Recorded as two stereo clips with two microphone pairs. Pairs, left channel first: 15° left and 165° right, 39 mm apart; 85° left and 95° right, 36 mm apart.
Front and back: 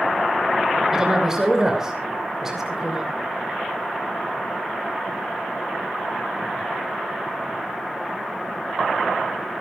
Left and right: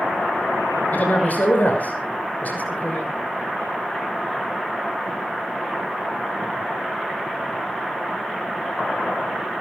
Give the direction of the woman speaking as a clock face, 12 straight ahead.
8 o'clock.